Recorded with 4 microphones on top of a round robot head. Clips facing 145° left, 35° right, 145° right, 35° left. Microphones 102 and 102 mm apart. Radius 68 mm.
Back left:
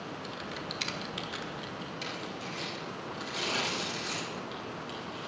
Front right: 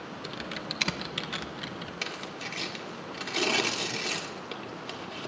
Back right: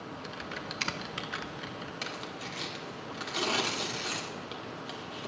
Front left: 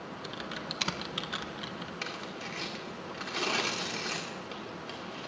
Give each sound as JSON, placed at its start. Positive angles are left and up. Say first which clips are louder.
{"t": 0.2, "sound": "typing on a keyboard", "louder": "front right 1 dB, front left 2 dB", "azimuth_deg": -40, "distance_m": 0.9}
{"t": 2.0, "sound": "tearing paper", "louder": "even, even", "azimuth_deg": -65, "distance_m": 1.7}